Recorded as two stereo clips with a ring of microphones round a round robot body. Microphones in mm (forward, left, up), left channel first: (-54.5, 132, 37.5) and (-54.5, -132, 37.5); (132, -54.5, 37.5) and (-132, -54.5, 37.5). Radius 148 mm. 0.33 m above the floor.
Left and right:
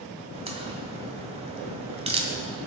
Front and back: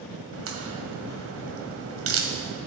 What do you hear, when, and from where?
0.3 s a crack: 155° right, 1.8 m